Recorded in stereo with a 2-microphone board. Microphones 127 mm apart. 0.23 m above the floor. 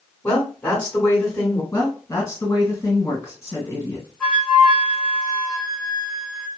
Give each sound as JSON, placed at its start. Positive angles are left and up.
{"t": 0.2, "sound": "a woman speaking", "side_deg": 20, "distance_m": 1.5}
{"t": 1.7, "sound": "a woman speaking", "side_deg": 30, "distance_m": 1.9}
{"t": 4.2, "sound": "a flute", "side_deg": 10, "distance_m": 1.9}